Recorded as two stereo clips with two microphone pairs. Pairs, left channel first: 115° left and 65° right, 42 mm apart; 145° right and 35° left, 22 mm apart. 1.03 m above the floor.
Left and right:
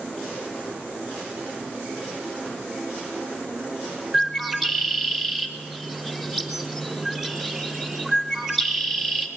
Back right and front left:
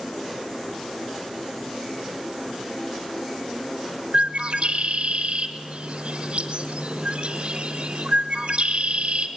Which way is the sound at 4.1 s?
15° left.